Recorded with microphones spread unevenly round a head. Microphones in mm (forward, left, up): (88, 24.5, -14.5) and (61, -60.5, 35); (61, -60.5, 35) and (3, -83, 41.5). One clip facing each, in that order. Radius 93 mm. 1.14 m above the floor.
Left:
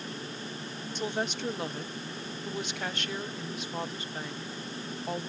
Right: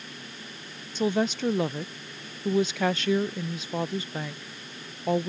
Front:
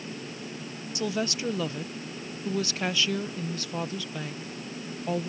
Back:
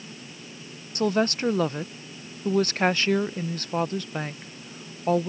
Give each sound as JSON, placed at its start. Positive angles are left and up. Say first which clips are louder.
{"t": 0.9, "sound": "a woman speaking", "louder": "right 8 dB, back 7 dB", "azimuth_deg": -110}